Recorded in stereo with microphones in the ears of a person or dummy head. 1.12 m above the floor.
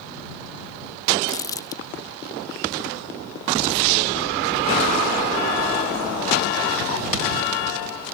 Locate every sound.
1.3 s crumpling: 15° left (ahead or behind)